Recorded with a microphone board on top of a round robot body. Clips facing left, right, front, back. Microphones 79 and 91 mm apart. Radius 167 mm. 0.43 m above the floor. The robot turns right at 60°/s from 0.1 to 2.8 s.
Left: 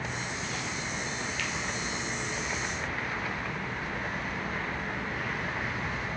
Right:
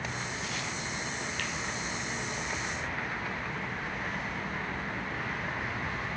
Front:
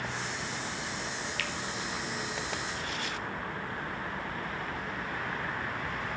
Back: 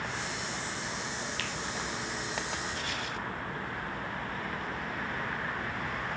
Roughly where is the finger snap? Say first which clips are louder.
Left 2 dB, front 1 dB; behind right.